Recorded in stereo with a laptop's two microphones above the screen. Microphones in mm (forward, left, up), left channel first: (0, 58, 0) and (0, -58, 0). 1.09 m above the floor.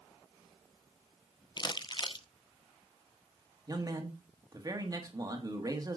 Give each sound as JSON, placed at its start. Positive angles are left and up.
{"t": 1.6, "sound": "crumpling", "side_deg": 40, "distance_m": 0.8}
{"t": 3.7, "sound": "a man speaking", "side_deg": -30, "distance_m": 1.5}